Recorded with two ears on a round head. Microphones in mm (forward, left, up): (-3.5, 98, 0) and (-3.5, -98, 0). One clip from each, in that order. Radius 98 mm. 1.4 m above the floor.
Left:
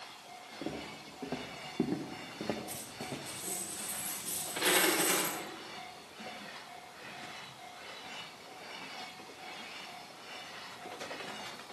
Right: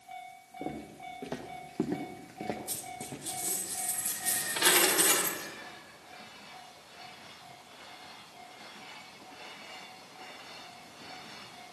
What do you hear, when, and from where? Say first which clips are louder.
0.6 s footsteps: right 2 dB; 65° right (ahead or behind), 3 m; by 3.2 s 25° left (ahead or behind), 2.5 m
2.7 s a dropped coin: right 1 dB; 40° right (ahead or behind), 6.5 m